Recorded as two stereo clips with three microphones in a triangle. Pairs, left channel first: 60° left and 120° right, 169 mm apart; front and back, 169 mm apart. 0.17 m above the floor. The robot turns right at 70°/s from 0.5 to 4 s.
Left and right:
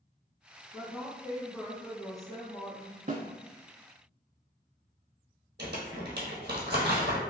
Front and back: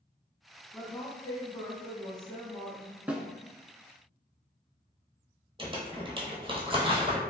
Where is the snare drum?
100° right, 0.6 m; by 3.2 s 90° right, 0.6 m.